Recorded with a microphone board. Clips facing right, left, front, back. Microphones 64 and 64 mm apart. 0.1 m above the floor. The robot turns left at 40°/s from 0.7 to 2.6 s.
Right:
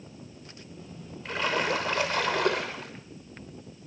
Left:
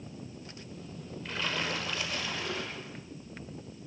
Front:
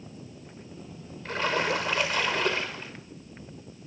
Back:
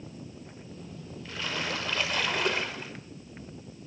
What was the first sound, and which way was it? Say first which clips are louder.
A splash: right 7 dB, front 7 dB; 50° right.